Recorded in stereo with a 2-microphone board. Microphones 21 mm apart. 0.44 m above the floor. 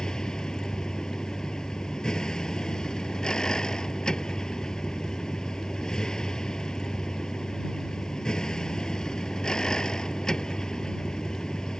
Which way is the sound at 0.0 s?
35° left (ahead or behind).